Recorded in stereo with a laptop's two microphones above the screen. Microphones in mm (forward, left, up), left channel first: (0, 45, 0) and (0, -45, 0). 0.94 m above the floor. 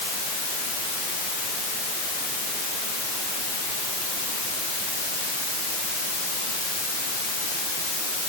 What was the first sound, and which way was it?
Only background noise.